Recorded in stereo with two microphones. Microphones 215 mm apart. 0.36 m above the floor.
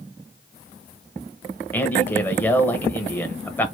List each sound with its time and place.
1.7 s a man speaking: 10° left (ahead or behind), 1.2 m